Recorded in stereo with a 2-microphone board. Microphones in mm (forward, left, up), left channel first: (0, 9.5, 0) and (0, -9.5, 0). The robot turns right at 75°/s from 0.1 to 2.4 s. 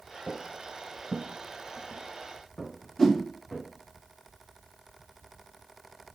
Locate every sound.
0.3 s footsteps: 15° left (ahead or behind), 0.8 m; by 3.7 s 70° left (ahead or behind), 3 m
3.0 s a whoosh: 45° left (ahead or behind), 2.5 m